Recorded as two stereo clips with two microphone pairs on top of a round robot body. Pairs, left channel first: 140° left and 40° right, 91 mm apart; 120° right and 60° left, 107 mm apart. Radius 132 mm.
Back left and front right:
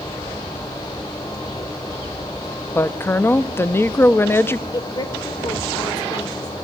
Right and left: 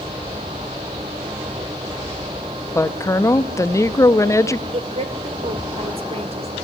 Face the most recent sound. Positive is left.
turn(degrees=85)